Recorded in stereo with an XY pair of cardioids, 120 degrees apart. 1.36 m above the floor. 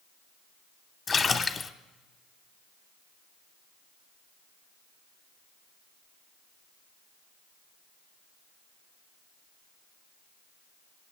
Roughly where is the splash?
Ahead left.